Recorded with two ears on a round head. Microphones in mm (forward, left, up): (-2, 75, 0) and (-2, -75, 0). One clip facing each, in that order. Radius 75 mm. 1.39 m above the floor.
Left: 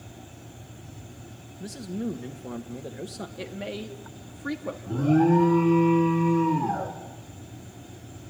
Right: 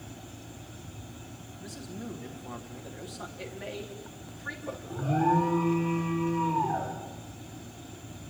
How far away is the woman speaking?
About 2.5 m.